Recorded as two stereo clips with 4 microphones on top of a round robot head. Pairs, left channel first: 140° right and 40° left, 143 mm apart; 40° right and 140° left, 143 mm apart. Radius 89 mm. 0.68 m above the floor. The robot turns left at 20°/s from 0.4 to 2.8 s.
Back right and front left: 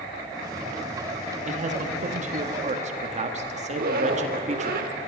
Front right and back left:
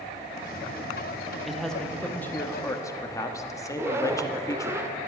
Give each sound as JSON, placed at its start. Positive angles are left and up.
{"t": 1.5, "sound": "a man speaking", "azimuth_deg": 50, "distance_m": 1.2}
{"t": 3.7, "sound": "a zipper", "azimuth_deg": 65, "distance_m": 0.8}